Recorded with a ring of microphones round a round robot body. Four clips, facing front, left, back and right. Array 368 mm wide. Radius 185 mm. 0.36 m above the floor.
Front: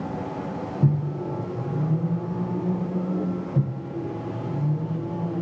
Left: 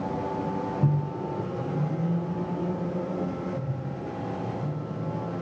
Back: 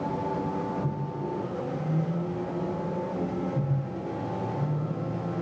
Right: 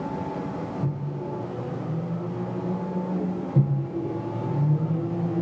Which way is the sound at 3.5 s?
50° right.